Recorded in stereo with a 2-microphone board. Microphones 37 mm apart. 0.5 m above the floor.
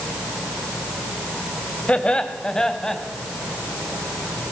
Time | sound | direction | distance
1.9 | laughter | 30° left (ahead or behind) | 2 m